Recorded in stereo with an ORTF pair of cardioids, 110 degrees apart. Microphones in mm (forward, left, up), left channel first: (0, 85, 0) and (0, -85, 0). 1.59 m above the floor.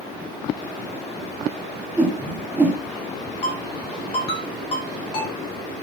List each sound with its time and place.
2.0 s a whoosh: 10° right, 3 m
3.4 s a ringtone: 35° left, 3.5 m